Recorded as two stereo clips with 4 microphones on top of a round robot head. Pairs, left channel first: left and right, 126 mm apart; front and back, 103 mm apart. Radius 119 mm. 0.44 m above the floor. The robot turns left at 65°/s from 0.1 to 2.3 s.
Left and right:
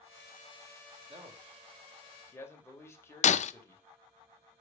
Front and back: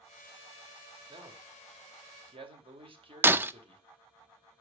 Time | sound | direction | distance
1.1 | a man speaking | 125° right | 2.5 m
3.2 | breaking glass | 110° left | 0.6 m